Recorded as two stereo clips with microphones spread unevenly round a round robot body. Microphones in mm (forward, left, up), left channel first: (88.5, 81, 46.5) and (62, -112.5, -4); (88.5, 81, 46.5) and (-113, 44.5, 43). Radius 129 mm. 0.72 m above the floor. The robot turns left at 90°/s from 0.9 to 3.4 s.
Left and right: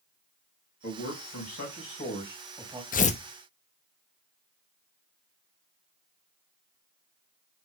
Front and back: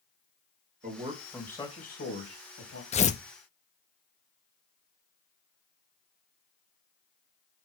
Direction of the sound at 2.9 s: 45° left.